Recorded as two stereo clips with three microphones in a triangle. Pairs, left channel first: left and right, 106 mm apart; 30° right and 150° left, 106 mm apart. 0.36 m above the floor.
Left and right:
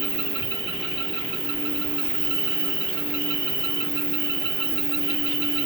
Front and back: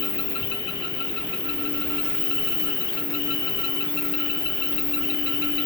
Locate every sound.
0.0 s an insect: 55° left, 1.5 m